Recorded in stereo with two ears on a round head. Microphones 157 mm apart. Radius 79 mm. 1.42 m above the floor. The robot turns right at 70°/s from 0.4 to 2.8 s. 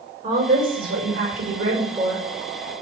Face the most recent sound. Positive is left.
turn(degrees=20)